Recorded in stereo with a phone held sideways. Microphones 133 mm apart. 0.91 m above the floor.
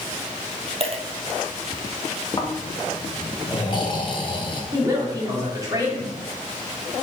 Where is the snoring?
35° left (ahead or behind), 1.1 m.